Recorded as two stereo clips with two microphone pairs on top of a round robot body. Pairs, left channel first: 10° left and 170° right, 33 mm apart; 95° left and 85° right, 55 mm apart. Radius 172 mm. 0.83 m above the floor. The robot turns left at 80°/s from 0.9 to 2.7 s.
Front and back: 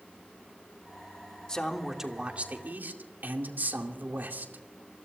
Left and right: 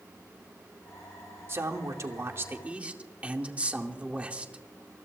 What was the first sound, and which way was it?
A man speaking, 50° right.